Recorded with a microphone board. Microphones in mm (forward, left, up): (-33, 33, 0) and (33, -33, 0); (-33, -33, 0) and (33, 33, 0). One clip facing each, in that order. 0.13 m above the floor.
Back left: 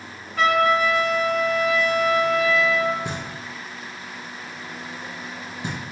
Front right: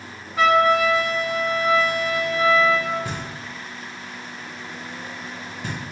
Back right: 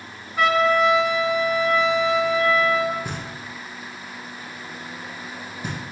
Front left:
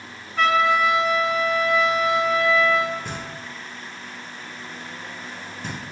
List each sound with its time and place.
0.4 s a trumpet: 75° right, 1.5 m
3.0 s knocking: 160° left, 0.8 m